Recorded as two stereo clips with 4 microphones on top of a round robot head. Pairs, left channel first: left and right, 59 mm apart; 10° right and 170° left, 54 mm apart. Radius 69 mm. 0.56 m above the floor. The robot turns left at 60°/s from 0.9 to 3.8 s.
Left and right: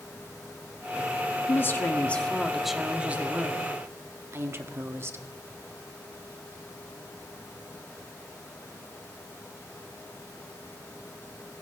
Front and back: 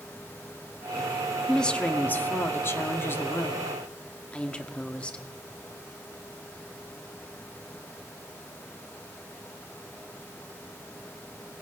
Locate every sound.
1.5 s a woman speaking: 70° left, 1.5 m; by 5.2 s 70° right, 1.5 m